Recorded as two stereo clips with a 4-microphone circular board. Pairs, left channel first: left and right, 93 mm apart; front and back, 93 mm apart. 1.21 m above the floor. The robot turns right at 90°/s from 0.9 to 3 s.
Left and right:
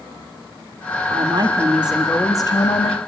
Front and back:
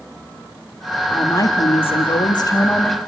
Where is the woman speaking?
75° right, 1.7 m; by 3.0 s 90° left, 1.7 m.